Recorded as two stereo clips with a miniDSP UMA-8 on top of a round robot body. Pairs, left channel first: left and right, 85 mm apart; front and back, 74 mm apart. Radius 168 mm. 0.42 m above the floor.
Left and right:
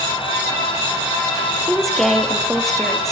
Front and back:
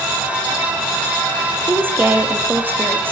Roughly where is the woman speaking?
Behind.